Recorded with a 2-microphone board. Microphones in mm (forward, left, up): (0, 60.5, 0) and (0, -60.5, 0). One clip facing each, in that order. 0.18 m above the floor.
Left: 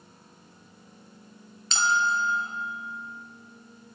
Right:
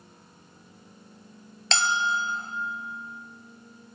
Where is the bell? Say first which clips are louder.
Left 1 dB; 75° right (ahead or behind), 1.6 m.